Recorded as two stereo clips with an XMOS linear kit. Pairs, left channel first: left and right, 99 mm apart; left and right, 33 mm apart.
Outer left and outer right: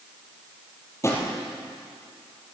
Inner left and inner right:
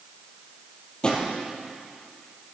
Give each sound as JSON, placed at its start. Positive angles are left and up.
{"t": 1.0, "sound": "a drawer", "side_deg": 30, "distance_m": 3.0}